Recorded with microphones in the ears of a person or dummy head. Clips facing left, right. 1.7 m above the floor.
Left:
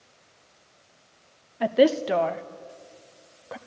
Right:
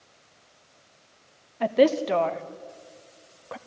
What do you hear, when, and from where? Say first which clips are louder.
1.6 s a woman speaking: even; 5° left (ahead or behind), 0.7 m